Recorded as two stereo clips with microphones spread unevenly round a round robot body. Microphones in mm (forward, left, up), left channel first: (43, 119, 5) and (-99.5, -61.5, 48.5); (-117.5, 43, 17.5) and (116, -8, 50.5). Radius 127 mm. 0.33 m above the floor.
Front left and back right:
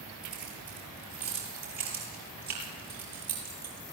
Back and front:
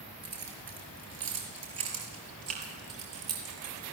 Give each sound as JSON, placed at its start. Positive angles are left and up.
{"t": 0.2, "sound": "keys jangling", "azimuth_deg": -40, "distance_m": 5.5}